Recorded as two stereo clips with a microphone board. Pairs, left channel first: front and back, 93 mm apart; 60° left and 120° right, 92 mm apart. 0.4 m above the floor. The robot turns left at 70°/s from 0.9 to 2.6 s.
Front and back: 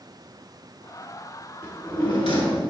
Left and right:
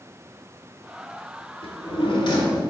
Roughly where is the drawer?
Left.